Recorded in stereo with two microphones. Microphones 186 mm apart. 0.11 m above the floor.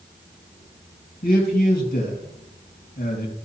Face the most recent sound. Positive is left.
turn(degrees=50)  # may be behind; listen again after turning